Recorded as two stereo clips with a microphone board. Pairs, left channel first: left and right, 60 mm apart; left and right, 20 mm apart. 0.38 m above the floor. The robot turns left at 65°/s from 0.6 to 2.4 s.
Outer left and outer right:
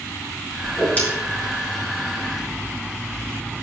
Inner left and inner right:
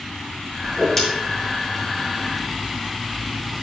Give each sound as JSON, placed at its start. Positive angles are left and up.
{"t": 0.6, "sound": "a whoosh", "side_deg": 0, "distance_m": 5.0}